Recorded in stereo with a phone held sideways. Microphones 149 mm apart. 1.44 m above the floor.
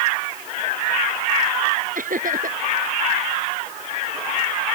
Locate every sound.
1.9 s laughter: 65° right (ahead or behind)